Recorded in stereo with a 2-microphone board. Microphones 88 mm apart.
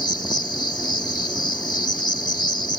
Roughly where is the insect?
Left.